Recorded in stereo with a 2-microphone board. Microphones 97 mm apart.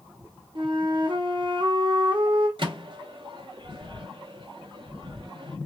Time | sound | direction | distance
0.6 | a flute | 50° right (ahead or behind) | 0.6 m
2.6 | a microwave | 55° right (ahead or behind) | 0.6 m